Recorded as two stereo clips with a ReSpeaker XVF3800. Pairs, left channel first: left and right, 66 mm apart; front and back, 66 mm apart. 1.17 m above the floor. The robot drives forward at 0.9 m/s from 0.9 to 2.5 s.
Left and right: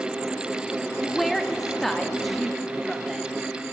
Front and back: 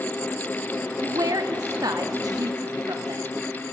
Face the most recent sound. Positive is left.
turn(degrees=175)